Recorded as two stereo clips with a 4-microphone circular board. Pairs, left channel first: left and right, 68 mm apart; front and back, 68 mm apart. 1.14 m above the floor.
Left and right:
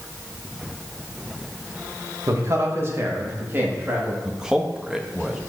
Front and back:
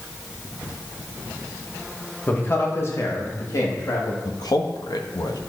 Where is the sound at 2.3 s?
60° right, 1.5 m; by 4.2 s 25° right, 3 m.